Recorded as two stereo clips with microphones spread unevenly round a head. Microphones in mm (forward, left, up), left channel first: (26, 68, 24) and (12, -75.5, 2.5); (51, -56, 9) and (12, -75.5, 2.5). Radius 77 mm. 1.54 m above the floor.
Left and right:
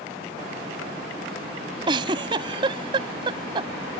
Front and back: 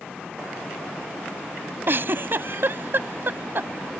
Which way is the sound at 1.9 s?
155° right.